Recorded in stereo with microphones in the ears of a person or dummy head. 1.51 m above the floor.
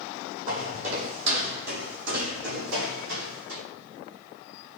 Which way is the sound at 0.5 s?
50° right (ahead or behind).